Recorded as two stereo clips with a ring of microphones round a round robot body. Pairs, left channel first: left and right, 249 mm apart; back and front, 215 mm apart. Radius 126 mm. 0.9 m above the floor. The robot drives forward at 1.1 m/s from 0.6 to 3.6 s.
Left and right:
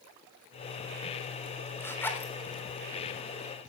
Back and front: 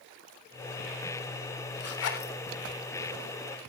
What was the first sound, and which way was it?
A zipper, 170° left.